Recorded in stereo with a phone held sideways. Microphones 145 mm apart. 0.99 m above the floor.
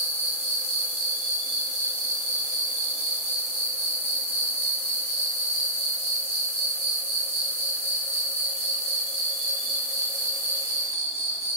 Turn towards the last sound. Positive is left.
turn(degrees=45)  # may be behind; listen again after turning